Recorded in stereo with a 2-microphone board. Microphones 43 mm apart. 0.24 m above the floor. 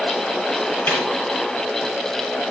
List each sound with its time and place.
0.9 s a snare drum: 50° left (ahead or behind), 7 m